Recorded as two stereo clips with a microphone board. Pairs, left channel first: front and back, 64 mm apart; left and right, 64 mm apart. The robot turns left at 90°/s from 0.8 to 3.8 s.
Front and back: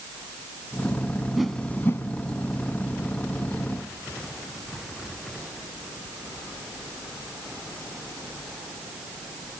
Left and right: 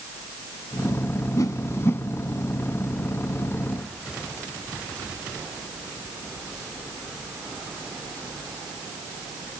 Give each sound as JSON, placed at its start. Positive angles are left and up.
{"t": 1.4, "sound": "a whoosh", "azimuth_deg": 95, "distance_m": 0.6}